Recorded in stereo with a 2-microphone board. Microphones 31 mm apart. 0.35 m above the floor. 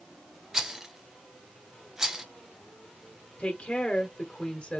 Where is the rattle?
20° right (ahead or behind), 0.9 m.